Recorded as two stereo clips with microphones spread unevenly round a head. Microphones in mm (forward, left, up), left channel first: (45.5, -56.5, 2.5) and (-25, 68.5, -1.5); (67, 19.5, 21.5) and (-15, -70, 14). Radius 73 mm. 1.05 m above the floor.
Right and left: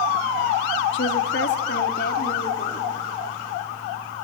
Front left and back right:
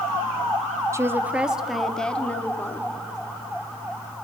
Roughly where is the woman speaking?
Ahead right.